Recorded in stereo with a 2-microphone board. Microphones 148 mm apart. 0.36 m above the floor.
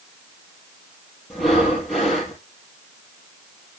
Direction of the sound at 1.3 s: Centre (ahead or behind).